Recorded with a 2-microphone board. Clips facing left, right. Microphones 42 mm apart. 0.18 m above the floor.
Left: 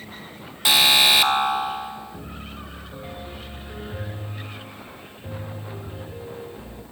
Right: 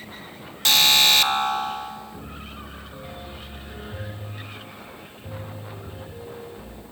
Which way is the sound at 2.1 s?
15° left (ahead or behind).